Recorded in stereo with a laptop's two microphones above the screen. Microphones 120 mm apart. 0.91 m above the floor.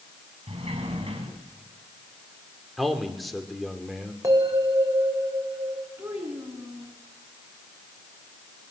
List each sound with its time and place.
0.5 s a sliding door: 55° right (ahead or behind), 6.5 m
2.8 s a man speaking: centre (ahead or behind), 2.5 m
4.2 s a bell: 30° right (ahead or behind), 4 m
6.0 s a child speaking: 15° right (ahead or behind), 6 m